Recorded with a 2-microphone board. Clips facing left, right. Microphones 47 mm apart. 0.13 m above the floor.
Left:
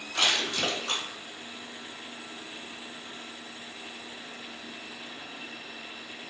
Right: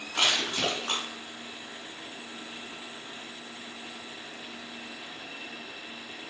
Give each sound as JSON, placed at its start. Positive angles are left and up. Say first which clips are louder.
{"t": 0.1, "sound": "crushing", "louder": "even", "side_deg": -30, "distance_m": 1.8}